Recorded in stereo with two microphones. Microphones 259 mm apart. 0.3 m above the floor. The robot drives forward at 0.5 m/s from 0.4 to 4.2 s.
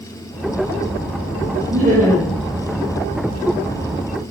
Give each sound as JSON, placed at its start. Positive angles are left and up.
{"t": 1.7, "sound": "laughter", "side_deg": -25, "distance_m": 6.5}